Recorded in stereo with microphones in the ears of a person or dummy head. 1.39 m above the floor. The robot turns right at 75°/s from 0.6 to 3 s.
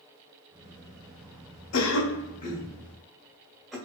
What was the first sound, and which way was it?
A cough, 80° left.